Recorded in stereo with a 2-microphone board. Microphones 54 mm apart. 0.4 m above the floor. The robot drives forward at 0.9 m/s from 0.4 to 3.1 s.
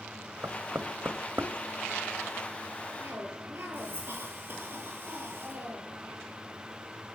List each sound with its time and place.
0.4 s knocking: 55° right (ahead or behind), 1.4 m; by 1.5 s 45° right (ahead or behind), 1.6 m
3.0 s a cough: 50° right (ahead or behind), 9.5 m